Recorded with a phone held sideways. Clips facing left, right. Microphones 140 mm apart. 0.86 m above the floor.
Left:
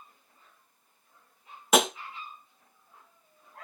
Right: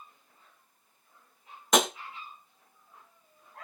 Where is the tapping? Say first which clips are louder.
Left 2 dB; 5° left (ahead or behind), 0.6 m.